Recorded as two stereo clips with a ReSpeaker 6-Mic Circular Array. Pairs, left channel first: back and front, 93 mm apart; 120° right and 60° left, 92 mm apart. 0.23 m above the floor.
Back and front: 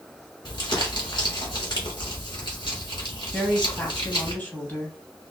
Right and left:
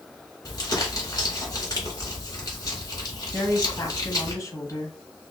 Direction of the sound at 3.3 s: 120° right.